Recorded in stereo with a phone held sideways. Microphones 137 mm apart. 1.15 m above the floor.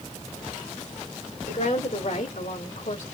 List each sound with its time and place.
1.5 s a woman speaking: 70° left (ahead or behind), 3 m; by 3.0 s 80° left, 2.5 m